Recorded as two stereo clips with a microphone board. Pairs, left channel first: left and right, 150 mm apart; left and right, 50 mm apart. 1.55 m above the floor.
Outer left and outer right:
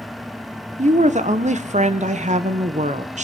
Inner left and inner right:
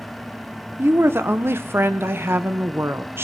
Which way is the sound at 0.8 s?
50° right (ahead or behind).